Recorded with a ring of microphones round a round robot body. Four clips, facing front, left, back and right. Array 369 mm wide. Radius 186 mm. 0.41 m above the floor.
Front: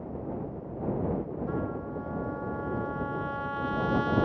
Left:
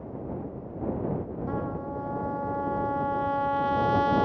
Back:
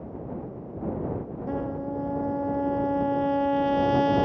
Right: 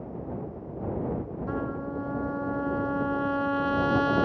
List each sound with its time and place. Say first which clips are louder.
1.5 s a trumpet: right 1 dB, back 3 dB; 150° right